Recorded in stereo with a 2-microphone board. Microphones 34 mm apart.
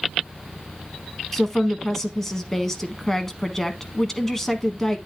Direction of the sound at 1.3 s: 15° left (ahead or behind).